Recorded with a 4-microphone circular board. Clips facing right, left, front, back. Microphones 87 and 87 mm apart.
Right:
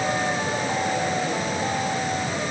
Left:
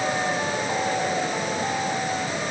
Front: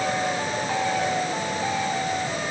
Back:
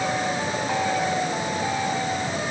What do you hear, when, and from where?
Only background noise.